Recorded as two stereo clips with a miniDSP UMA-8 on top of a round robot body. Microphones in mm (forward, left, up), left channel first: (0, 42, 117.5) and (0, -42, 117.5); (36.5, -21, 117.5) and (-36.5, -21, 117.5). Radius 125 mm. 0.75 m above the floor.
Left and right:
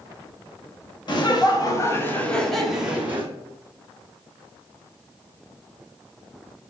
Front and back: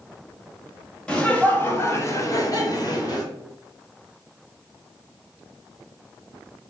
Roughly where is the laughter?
Left.